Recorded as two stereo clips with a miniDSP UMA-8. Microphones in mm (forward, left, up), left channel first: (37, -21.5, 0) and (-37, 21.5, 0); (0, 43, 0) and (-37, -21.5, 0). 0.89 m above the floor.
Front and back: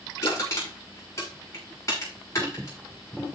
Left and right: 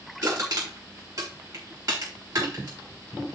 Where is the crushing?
85° right, 6.5 m.